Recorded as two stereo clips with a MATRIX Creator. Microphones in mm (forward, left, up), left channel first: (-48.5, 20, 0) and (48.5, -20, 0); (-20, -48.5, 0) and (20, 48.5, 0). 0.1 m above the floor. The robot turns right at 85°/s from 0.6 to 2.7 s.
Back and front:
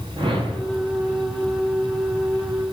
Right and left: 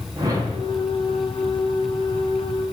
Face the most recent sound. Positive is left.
turn(degrees=-170)